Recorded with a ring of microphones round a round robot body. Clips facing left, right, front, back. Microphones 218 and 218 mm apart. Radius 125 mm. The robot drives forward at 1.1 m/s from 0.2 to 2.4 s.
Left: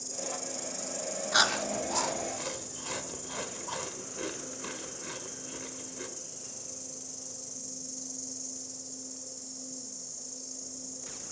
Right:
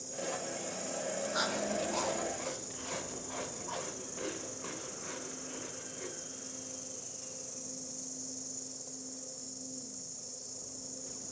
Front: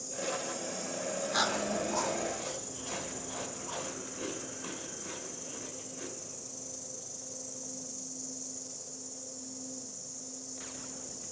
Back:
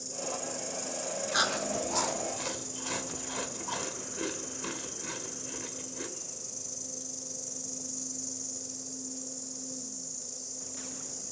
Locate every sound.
0.0 s an insect: 105° left, 3 m; by 11.3 s 140° left, 4.5 m
1.3 s chewing: 95° left, 1.0 m; by 6.1 s 140° left, 1.7 m